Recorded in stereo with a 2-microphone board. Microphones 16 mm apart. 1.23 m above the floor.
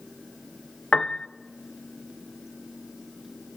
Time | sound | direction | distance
0.9 | a piano | 50° left (ahead or behind) | 0.6 m